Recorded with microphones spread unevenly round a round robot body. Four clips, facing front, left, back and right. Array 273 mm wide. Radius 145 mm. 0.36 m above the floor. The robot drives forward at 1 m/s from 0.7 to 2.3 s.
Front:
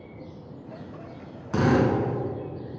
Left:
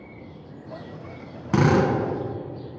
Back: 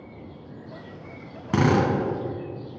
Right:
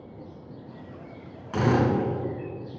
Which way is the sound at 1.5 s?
130° left.